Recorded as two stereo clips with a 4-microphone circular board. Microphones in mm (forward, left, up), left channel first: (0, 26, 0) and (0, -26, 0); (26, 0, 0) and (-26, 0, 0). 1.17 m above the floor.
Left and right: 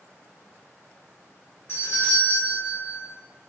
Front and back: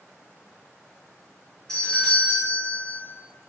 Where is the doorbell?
80° left, 1.6 m.